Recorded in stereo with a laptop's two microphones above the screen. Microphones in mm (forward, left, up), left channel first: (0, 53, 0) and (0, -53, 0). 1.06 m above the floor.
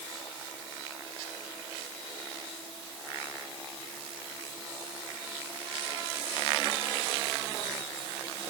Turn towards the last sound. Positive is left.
No sound to turn to.